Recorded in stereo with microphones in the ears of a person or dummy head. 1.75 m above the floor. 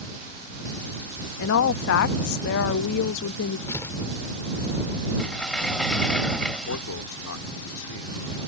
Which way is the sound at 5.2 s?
5° left (ahead or behind).